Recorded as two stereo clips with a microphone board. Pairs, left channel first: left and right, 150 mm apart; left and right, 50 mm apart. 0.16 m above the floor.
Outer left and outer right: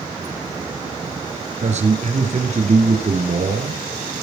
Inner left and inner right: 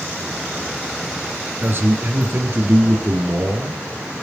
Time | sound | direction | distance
1.6 | a man speaking | 50° right (ahead or behind) | 3 m